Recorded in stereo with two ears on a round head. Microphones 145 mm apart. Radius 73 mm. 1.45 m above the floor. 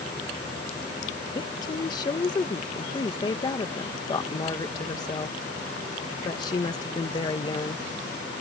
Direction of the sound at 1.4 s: 25° left (ahead or behind).